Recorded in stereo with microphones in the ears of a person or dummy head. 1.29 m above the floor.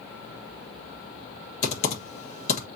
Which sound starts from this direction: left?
Typing on a keyboard, at 1.6 s.